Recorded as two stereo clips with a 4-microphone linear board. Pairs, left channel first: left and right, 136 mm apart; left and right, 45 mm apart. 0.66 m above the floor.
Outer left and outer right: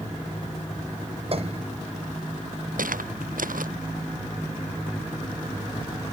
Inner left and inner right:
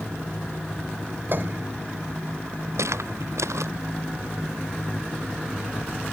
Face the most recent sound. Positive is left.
turn(degrees=-80)